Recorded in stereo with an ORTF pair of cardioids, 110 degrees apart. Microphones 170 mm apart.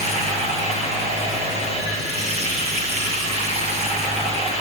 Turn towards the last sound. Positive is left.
turn(degrees=-40)